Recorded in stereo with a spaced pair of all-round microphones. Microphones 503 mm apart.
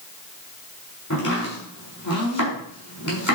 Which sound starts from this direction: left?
Chopping, at 1.1 s.